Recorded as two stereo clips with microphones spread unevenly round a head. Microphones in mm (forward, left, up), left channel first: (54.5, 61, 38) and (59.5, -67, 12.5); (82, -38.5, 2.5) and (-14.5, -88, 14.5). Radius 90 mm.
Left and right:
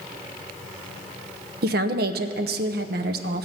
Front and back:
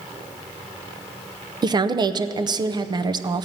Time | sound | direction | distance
1.6 | a woman speaking | 105° right | 0.6 m